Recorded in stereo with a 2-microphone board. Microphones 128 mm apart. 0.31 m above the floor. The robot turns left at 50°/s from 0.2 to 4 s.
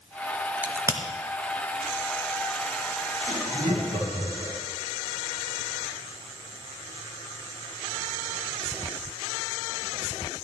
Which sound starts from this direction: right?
Laughter, at 3.3 s.